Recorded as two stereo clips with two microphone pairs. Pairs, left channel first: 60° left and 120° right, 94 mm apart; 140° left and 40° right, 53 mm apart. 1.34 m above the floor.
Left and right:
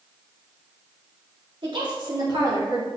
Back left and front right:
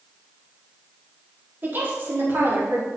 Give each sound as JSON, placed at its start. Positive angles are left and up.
{"t": 1.6, "sound": "a woman speaking", "azimuth_deg": -90, "distance_m": 3.5}